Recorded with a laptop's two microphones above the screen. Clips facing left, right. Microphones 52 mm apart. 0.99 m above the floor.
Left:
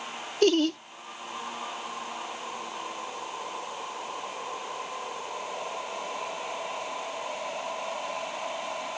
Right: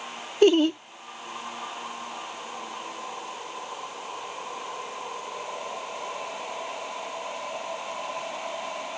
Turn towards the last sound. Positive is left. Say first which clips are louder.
# right 4 dB
turn(degrees=-20)  # may be behind; listen again after turning